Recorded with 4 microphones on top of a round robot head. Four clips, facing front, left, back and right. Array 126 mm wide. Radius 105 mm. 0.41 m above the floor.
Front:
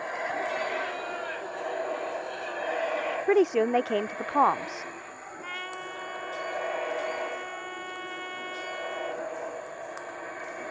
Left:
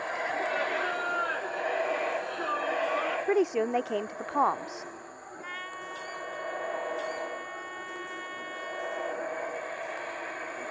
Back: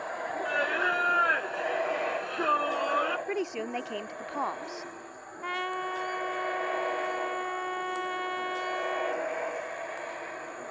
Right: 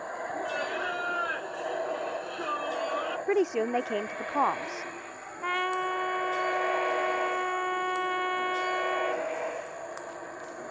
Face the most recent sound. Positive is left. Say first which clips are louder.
# right 13 dB, back 7 dB
turn(degrees=-115)